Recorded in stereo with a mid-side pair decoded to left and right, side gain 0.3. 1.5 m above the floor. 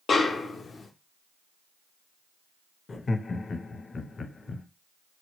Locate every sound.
0.1 s a snare drum: 65° left, 0.5 m
2.9 s laughter: 50° left, 0.6 m